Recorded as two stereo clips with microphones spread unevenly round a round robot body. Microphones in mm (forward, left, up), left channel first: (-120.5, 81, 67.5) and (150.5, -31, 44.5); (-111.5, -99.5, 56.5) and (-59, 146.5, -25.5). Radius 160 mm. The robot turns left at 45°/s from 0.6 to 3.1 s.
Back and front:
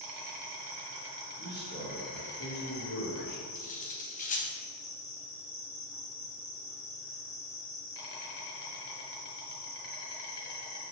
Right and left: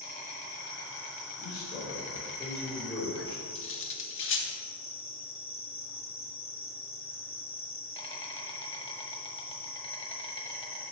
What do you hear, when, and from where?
0.0 s an insect: 50° right, 1.4 m; by 10.9 s 160° right, 1.4 m
1.4 s a man speaking: 115° right, 3 m; by 3.4 s 165° left, 3 m
3.5 s cutlery clinking: 135° right, 0.9 m